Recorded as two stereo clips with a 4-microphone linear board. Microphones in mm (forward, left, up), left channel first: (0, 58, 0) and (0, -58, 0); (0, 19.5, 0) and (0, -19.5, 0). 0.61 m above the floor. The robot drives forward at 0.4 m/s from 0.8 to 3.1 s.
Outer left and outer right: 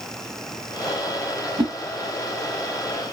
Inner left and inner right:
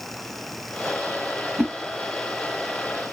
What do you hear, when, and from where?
1.6 s a whoosh: 45° right (ahead or behind), 0.5 m